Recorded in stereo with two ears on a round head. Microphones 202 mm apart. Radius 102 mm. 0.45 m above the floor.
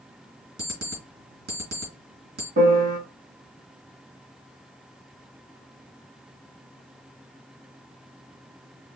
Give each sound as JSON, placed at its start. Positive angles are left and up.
{"t": 0.6, "sound": "an alarm clock", "side_deg": -45, "distance_m": 4.0}
{"t": 2.6, "sound": "a piano", "side_deg": -45, "distance_m": 3.0}